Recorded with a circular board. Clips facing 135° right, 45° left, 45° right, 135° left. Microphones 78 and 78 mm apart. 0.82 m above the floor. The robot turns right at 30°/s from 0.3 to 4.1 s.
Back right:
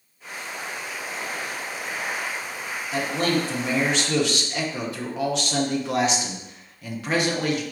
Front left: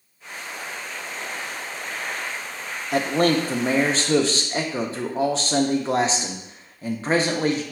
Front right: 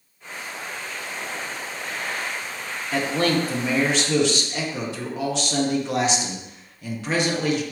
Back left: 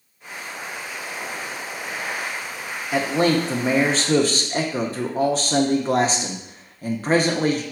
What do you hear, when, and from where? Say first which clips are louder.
2.9 s a man speaking: front left 4 dB, back left 3 dB; 60° left, 0.6 m; by 7.6 s 95° left, 0.6 m